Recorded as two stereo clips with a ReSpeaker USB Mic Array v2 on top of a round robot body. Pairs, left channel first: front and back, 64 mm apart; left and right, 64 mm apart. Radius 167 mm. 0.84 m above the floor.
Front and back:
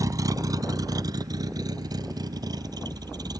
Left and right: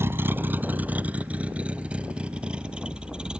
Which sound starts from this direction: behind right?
A vehicle, at 0.0 s.